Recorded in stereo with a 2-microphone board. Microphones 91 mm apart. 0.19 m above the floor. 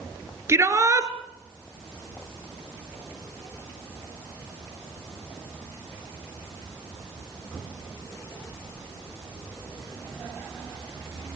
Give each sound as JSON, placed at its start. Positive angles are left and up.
{"t": 0.5, "sound": "a shout", "side_deg": -30, "distance_m": 2.5}